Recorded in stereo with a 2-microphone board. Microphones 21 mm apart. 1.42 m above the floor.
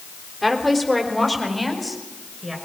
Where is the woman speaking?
10° left (ahead or behind), 3.5 m; by 2.5 s centre (ahead or behind), 5.5 m.